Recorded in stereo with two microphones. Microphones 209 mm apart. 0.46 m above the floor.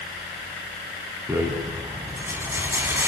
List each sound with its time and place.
1.3 s a rattle: 10° right (ahead or behind), 3.5 m